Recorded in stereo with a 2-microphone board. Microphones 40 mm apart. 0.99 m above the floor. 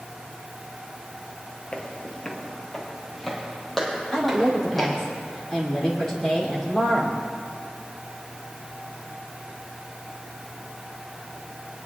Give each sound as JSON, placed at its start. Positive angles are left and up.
{"t": 1.7, "sound": "footsteps", "side_deg": 30, "distance_m": 1.2}
{"t": 4.1, "sound": "a woman speaking", "side_deg": 5, "distance_m": 3.0}